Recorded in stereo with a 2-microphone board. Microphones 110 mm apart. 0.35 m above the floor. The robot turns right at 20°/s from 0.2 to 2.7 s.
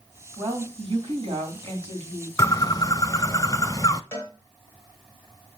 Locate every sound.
0.4 s a woman speaking: 125° right, 2.5 m; by 2.3 s 85° right, 2.5 m
2.4 s a bird: 25° left (ahead or behind), 0.5 m; by 4.0 s 35° left (ahead or behind), 0.5 m
4.1 s a cowbell: 25° left (ahead or behind), 1.7 m